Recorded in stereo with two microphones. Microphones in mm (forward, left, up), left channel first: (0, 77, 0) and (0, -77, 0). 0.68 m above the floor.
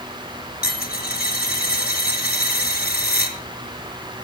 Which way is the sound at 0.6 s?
80° left.